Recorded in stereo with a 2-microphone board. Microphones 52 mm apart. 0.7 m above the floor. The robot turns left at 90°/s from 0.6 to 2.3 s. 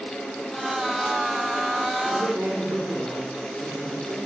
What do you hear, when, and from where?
2.0 s a man speaking: 55° right (ahead or behind), 2 m; by 4.2 s 70° right (ahead or behind), 2 m